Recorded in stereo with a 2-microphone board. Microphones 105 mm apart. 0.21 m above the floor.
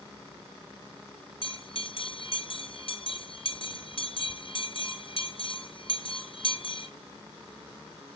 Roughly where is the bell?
Left.